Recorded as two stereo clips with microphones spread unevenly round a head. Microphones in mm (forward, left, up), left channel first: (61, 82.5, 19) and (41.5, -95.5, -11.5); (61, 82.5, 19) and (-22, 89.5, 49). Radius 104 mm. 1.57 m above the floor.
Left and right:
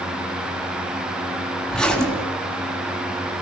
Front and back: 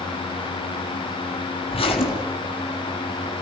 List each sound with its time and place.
1.7 s a zipper: straight ahead, 3.5 m